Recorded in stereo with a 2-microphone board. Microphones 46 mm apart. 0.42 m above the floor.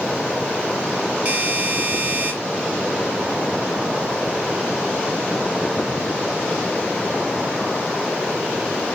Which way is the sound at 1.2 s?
30° right (ahead or behind).